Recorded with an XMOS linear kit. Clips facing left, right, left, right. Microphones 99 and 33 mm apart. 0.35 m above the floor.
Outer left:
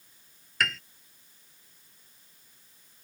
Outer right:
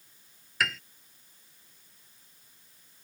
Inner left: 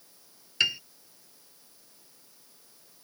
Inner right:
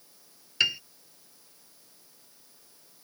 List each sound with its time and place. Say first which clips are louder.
0.6 s a piano: even, even; centre (ahead or behind)